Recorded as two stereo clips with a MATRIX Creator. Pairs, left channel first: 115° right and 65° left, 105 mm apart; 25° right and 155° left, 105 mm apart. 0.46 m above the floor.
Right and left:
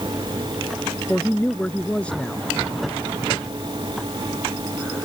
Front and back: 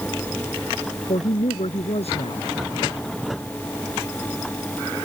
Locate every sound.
1.1 s a woman speaking: 30° right